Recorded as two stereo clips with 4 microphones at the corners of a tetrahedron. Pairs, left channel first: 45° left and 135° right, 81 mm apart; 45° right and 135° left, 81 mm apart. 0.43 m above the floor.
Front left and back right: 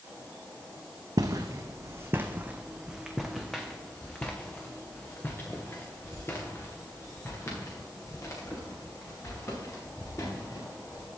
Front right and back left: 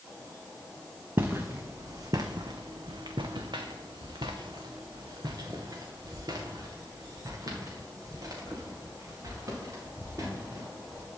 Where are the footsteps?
165° right, 1.2 m; by 11.1 s 90° left, 5 m.